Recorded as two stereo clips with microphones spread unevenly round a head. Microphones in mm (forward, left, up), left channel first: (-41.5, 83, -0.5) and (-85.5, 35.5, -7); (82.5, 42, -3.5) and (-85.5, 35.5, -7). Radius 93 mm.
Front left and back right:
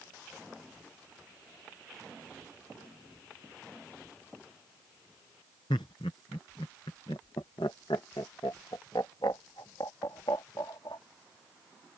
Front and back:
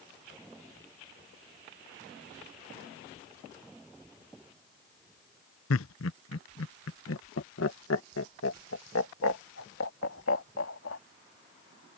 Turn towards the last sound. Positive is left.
turn(degrees=-10)